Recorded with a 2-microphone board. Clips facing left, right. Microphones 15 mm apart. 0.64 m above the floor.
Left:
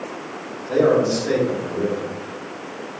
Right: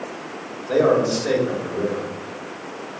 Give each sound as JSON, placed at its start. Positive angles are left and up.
{"t": 0.7, "sound": "a man speaking", "side_deg": -55, "distance_m": 2.0}